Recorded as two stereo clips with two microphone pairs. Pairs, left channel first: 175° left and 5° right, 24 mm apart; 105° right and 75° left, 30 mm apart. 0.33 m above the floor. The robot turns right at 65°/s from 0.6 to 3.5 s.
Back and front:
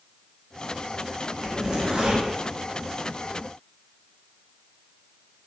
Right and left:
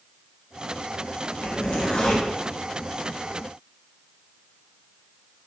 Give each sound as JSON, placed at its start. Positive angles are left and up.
{"t": 1.4, "sound": "a zipper", "azimuth_deg": -85, "distance_m": 0.7}